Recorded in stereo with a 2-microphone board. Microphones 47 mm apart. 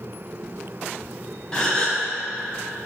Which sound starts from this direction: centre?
A gasp, at 1.5 s.